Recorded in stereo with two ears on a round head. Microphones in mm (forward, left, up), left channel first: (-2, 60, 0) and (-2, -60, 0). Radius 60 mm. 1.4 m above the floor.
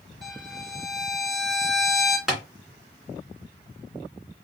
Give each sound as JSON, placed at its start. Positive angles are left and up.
{"t": 0.2, "sound": "a violin", "side_deg": 0, "distance_m": 2.0}
{"t": 2.3, "sound": "tapping", "side_deg": -5, "distance_m": 2.5}